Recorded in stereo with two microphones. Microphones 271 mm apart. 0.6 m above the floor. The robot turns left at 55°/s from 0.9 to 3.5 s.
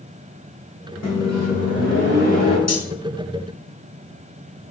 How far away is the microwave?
About 1.3 m.